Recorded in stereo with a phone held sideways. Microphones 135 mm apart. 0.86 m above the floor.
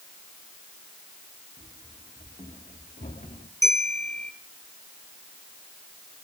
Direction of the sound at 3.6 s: 60° right (ahead or behind).